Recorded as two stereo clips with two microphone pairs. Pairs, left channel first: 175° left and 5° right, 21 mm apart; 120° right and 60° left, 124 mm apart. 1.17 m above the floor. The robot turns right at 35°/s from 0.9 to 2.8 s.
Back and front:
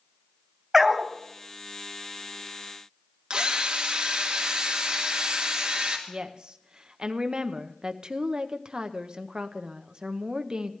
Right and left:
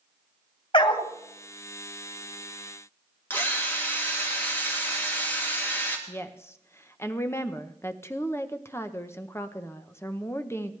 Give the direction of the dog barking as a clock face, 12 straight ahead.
3 o'clock.